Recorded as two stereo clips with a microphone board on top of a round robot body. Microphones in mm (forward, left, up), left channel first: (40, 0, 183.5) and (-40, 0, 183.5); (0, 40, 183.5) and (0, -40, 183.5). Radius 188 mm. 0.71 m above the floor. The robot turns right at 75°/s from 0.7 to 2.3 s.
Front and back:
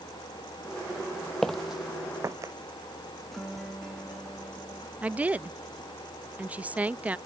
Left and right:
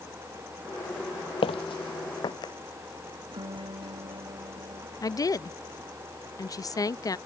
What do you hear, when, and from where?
1.4 s footsteps: 85° left; by 2.5 s 125° left
3.3 s a guitar: 90° right
5.0 s a woman speaking: 115° left